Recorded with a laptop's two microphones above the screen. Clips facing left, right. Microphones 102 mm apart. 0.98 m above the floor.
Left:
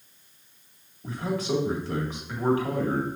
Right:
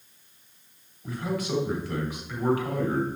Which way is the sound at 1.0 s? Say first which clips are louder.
Left 1 dB; 30° left (ahead or behind).